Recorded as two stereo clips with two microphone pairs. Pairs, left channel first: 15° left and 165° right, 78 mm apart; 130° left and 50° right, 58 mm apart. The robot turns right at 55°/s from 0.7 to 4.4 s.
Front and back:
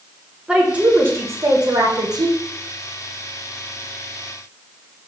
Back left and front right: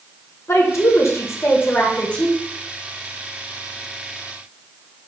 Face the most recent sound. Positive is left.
turn(degrees=-40)